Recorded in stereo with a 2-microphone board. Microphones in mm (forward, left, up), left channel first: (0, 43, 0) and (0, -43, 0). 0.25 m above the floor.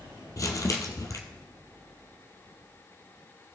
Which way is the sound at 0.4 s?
40° left (ahead or behind).